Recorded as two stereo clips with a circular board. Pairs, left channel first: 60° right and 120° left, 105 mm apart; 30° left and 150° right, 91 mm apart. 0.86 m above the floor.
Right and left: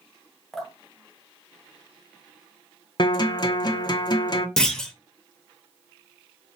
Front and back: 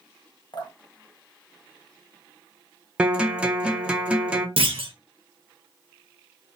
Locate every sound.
0.5 s dripping: 25° left, 0.6 m
3.0 s a guitar: 75° right, 0.5 m
4.6 s a clunk: 145° right, 0.5 m